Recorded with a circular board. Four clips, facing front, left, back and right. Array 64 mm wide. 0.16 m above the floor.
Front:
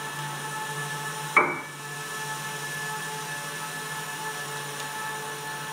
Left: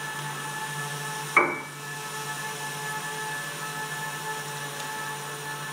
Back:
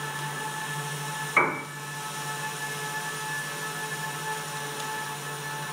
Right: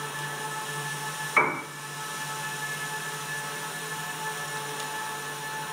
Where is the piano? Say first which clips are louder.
Left 2 dB, front 2 dB; 30° left, 1.3 m.